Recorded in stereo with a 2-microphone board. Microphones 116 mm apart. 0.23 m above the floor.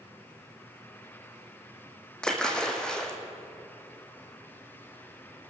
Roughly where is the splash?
Centre.